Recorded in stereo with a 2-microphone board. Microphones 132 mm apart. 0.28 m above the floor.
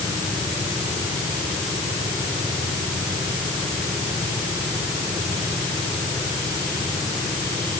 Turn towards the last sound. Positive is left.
No sound to turn to.